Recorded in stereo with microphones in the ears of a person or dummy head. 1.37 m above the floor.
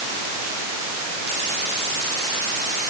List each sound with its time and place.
Only background noise.